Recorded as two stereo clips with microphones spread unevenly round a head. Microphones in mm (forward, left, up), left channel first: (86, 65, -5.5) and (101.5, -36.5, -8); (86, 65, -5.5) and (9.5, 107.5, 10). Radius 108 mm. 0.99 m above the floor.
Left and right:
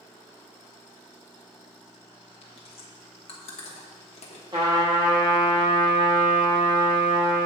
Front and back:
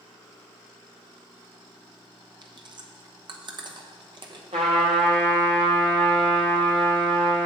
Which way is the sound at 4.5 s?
150° right.